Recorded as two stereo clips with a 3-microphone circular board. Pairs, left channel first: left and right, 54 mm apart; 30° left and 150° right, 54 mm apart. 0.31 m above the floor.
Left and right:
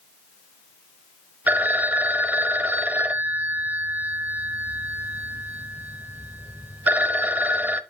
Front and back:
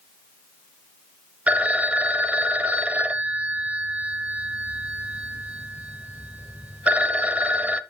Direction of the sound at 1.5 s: 110° right.